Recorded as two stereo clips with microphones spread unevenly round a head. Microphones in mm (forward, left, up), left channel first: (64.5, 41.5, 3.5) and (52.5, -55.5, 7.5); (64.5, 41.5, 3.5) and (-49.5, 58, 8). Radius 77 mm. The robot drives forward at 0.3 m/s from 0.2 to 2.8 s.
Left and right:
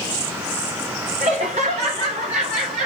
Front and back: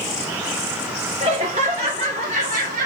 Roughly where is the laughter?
Behind right.